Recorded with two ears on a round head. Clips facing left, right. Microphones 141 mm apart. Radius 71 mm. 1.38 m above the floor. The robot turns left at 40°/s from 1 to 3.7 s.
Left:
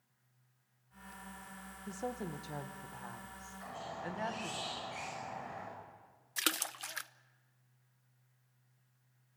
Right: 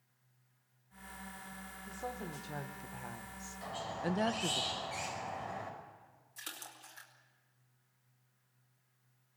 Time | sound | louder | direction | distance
1.9 | a woman speaking | left 3 dB | 30° left | 1.1 m
3.6 | a squeak | right 5 dB | 35° right (ahead or behind) | 5.5 m
6.4 | a splash | left 12 dB | 80° left | 0.8 m